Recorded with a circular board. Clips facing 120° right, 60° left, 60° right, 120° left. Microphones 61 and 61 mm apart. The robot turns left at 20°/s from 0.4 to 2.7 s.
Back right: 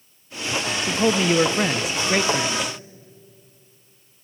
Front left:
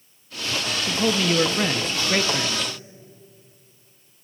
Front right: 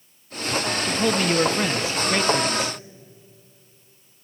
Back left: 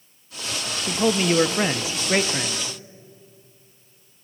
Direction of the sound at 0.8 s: 170° right.